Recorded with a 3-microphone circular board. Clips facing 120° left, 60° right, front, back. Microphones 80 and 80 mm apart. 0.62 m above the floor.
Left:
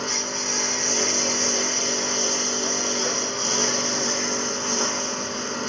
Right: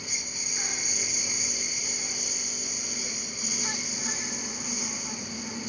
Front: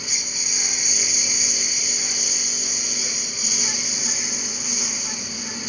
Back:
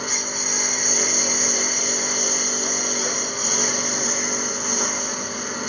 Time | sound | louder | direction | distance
0.0 | a lawn mower | left 12 dB, back 7 dB | 140° left | ?